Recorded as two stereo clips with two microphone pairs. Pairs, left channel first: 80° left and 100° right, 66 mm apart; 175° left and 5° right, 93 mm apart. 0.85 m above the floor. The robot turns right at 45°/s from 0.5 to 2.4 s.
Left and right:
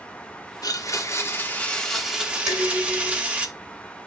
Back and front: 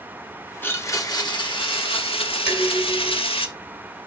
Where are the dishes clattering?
130° right, 4 m.